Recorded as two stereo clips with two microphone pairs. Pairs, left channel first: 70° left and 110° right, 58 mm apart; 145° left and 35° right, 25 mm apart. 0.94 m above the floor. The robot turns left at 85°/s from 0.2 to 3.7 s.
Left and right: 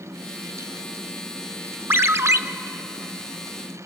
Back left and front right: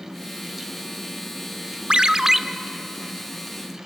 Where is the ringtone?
75° right, 0.7 m; by 2.4 s 115° right, 0.7 m.